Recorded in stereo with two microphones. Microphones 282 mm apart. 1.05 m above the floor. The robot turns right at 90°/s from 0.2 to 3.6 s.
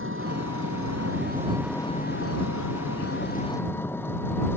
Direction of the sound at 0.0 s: 135° right.